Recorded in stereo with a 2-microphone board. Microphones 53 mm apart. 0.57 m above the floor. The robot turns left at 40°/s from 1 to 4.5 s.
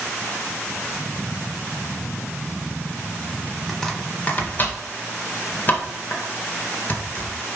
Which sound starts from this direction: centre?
Chopping, at 3.7 s.